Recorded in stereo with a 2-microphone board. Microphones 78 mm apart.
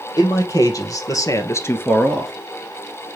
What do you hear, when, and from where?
0.2 s a man speaking: 50° left (ahead or behind), 3 m; by 2.3 s 5° left (ahead or behind), 1.1 m